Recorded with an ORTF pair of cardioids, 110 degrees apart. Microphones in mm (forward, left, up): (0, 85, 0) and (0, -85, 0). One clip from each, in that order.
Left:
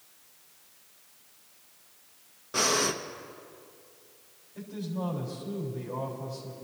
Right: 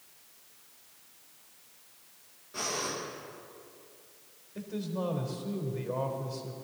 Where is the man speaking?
35° right, 4 m.